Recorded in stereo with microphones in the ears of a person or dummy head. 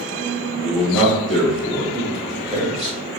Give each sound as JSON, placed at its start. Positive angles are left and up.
{"t": 0.6, "sound": "a man speaking", "side_deg": 5, "distance_m": 1.9}
{"t": 1.9, "sound": "a man speaking", "side_deg": -5, "distance_m": 1.3}